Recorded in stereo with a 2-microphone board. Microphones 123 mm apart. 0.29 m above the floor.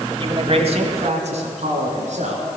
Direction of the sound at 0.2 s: 45° right (ahead or behind).